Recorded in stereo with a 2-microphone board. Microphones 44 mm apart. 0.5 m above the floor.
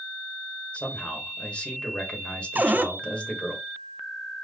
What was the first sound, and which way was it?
A man speaking, 25° left (ahead or behind).